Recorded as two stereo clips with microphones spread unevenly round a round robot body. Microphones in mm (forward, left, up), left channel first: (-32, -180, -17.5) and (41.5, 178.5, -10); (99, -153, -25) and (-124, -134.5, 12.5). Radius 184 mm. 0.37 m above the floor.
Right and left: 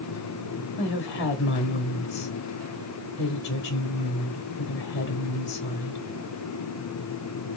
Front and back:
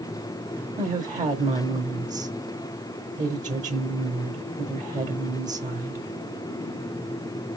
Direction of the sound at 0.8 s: 135° right.